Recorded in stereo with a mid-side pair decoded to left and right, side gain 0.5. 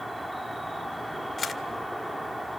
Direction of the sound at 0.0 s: 10° right.